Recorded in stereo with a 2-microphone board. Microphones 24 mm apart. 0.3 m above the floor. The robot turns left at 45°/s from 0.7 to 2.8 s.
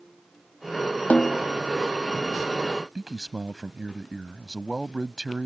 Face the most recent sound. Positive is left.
turn(degrees=-25)  # may be behind; listen again after turning